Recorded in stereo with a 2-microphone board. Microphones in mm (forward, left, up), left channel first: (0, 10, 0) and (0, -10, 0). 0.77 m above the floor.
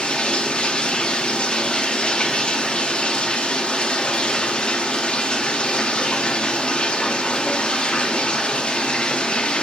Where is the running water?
50° left (ahead or behind), 0.8 m.